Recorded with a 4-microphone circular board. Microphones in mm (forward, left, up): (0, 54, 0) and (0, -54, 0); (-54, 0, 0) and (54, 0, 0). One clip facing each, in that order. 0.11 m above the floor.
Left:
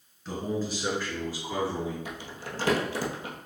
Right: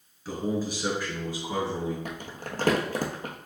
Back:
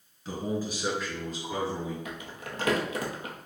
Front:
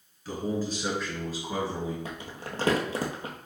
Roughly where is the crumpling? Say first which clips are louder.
Right 2 dB, front 1 dB; ahead right.